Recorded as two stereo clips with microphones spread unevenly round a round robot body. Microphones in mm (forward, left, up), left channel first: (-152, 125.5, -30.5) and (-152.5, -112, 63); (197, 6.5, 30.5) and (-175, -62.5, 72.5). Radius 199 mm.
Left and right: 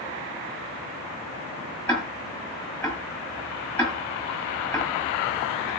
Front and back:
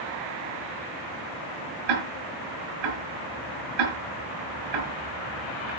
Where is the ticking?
170° left, 7 m.